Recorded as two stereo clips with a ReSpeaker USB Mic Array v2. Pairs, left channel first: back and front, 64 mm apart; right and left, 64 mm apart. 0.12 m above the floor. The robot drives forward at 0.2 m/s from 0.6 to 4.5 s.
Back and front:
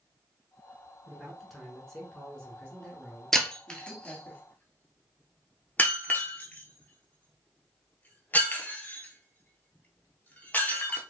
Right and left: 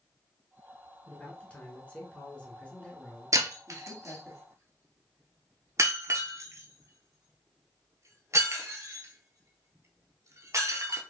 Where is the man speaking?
95° right, 1.1 m; by 4.3 s 150° right, 1.3 m.